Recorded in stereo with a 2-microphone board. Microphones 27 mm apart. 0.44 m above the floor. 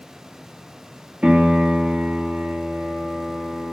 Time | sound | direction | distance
1.2 | a piano | 65° right (ahead or behind) | 2 m